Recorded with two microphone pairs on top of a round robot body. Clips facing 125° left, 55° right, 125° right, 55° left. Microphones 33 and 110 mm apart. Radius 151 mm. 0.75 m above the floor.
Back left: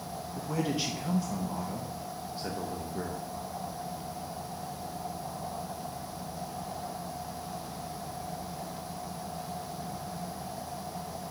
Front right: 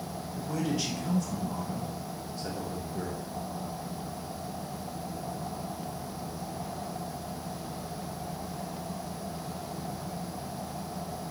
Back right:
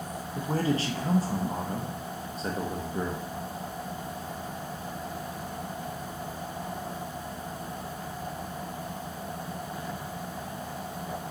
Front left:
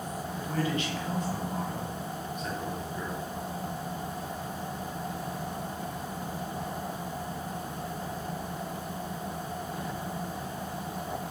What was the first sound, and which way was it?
A man speaking, 160° right.